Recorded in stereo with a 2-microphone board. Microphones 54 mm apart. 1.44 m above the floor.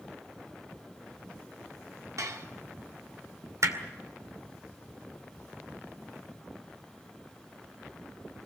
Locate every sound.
2.2 s dishes clattering: 70° right (ahead or behind), 2.5 m
3.6 s hammering: 65° right (ahead or behind), 2 m